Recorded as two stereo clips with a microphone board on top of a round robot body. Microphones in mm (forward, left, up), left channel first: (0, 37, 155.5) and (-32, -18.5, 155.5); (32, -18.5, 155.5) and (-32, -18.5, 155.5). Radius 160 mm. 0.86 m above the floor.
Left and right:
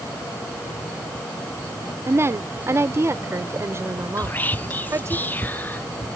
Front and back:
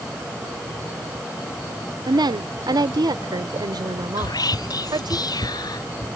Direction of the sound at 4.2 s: 5° right.